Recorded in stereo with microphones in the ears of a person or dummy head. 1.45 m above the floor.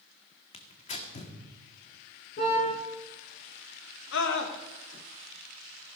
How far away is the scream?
About 1.5 m.